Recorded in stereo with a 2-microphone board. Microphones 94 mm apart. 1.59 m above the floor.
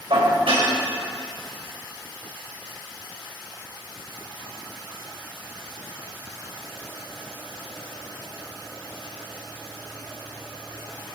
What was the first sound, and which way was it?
Dishes clattering, 80° right.